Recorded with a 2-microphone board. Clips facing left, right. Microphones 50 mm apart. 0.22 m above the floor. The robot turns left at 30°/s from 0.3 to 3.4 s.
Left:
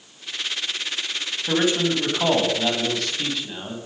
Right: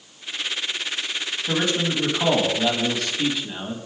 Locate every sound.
1.5 s a man speaking: 45° left, 1.3 m; by 3.8 s 10° right, 1.3 m